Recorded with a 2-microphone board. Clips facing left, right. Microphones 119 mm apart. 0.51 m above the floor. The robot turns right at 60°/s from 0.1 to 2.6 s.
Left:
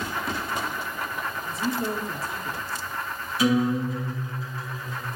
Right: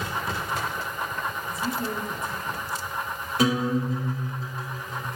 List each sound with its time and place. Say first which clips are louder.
1.5 s a woman speaking: left 4 dB; 55° left, 0.8 m; by 2.9 s 120° left, 0.8 m
3.4 s a guitar: left 2 dB; 55° right (ahead or behind), 3 m